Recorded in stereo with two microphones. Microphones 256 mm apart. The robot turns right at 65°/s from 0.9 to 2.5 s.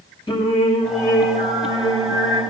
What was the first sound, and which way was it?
Singing, 20° left.